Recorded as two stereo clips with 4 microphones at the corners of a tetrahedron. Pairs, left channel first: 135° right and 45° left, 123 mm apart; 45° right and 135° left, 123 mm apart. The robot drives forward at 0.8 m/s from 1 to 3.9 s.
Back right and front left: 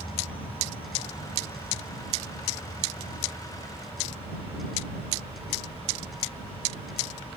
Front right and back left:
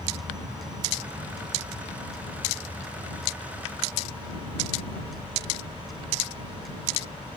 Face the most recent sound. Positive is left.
turn(degrees=-175)